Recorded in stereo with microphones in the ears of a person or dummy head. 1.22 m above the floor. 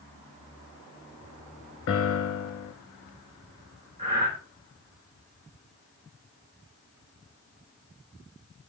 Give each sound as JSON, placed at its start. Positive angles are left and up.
{"t": 1.9, "sound": "a piano", "side_deg": 70, "distance_m": 1.4}
{"t": 4.0, "sound": "breathing", "side_deg": -25, "distance_m": 4.5}